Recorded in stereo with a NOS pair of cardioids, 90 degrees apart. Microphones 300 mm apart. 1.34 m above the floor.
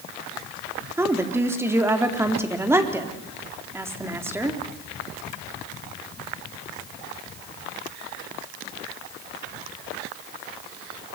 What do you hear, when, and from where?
1.0 s a woman speaking: 10° right, 3.5 m